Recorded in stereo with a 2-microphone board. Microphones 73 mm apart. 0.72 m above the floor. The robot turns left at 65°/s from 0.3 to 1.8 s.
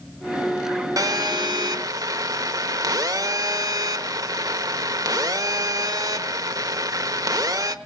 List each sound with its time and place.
1.0 s a phone buzzing: 60° right, 1.2 m; by 7.8 s 115° right, 1.2 m